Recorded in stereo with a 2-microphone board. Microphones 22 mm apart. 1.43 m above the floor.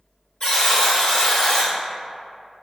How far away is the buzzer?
About 1.9 m.